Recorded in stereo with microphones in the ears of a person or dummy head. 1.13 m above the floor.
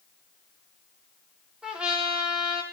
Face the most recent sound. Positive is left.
turn(degrees=-5)  # may be behind; listen again after turning